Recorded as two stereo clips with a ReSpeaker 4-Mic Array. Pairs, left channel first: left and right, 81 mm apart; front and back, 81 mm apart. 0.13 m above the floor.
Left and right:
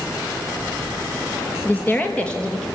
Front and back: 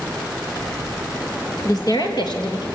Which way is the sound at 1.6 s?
25° left.